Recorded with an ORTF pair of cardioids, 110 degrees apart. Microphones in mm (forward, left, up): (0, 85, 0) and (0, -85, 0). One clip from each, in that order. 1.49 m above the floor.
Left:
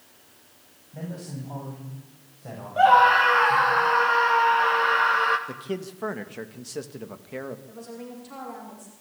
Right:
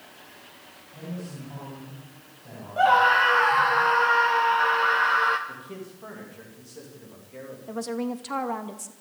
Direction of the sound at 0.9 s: 55° left.